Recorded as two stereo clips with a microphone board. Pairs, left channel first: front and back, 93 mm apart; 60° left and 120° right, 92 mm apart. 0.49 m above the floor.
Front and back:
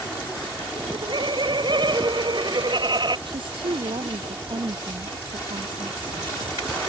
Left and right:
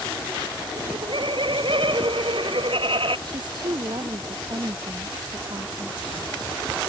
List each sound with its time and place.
0.8 s laughter: 145° right; by 3.2 s 140° right
3.3 s a woman speaking: 155° right